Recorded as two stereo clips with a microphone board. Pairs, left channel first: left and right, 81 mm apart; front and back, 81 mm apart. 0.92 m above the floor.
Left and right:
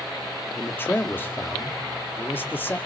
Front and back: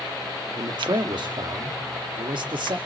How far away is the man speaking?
About 1.7 m.